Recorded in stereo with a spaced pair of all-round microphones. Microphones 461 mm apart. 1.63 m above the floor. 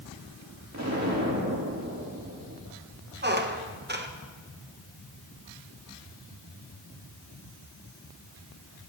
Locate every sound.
0.7 s an explosion: 35° right (ahead or behind), 2.5 m
3.2 s a squeak: 20° right (ahead or behind), 1.0 m